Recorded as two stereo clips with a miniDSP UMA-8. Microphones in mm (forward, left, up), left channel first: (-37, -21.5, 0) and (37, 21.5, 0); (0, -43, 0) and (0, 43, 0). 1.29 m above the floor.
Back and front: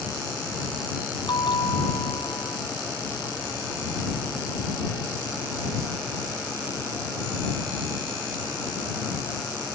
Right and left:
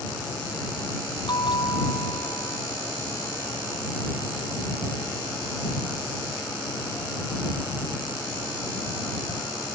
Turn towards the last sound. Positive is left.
turn(degrees=-125)